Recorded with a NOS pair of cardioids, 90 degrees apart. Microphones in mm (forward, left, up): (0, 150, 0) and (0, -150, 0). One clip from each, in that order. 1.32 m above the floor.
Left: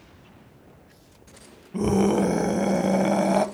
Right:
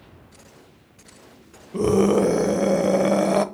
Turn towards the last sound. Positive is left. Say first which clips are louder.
# right 4 dB
turn(degrees=-15)